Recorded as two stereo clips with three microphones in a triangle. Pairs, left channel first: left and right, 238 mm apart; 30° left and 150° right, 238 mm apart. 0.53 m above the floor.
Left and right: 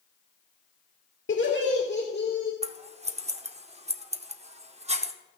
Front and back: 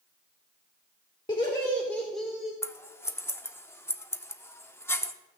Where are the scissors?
45° right, 0.6 m.